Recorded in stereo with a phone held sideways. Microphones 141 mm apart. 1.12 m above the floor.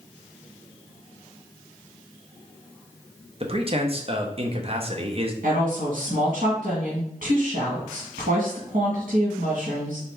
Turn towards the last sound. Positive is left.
turn(degrees=-80)